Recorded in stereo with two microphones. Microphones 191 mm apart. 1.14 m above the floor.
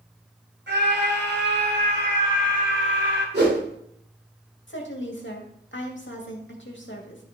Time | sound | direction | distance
0.7 | a scream | 70° right (ahead or behind) | 6 m
3.3 | a whoosh | 65° right (ahead or behind) | 3 m
4.7 | a woman speaking | 75° left (ahead or behind) | 2 m